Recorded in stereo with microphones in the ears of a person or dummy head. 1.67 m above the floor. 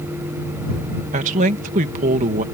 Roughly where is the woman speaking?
Right.